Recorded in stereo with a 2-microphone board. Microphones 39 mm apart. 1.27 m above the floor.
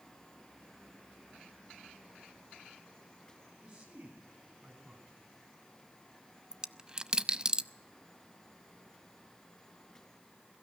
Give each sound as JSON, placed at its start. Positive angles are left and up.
{"t": 3.6, "sound": "a man speaking", "side_deg": -20, "distance_m": 8.5}
{"t": 6.5, "sound": "a dropped coin", "side_deg": -20, "distance_m": 0.5}